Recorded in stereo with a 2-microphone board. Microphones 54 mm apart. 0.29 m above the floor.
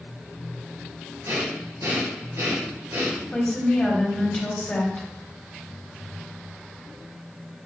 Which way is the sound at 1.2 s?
80° right.